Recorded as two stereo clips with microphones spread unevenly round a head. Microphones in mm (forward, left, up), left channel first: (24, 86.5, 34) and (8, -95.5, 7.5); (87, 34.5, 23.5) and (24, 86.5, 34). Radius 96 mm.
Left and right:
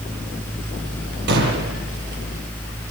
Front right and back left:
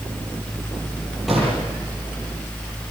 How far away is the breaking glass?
No breaking glass in this recording.